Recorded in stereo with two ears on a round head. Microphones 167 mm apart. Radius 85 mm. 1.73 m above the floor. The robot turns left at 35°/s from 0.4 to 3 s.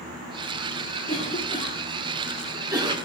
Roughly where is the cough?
Left.